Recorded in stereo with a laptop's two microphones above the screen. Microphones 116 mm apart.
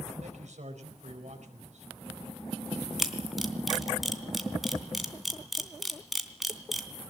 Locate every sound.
0.2 s a man speaking: 75° right (ahead or behind), 4.5 m
3.0 s a camera shutter: centre (ahead or behind), 3 m